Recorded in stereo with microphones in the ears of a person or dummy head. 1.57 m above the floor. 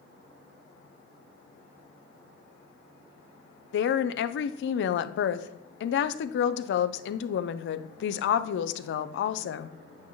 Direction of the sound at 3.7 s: 70° left (ahead or behind).